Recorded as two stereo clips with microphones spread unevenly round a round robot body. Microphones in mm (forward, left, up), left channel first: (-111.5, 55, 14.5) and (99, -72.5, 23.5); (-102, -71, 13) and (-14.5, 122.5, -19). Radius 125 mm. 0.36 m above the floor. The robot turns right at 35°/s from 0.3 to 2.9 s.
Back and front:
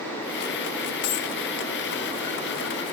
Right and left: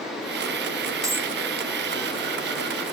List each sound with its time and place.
1.0 s a dropped coin: 135° left, 0.9 m; by 1.3 s 145° left, 0.9 m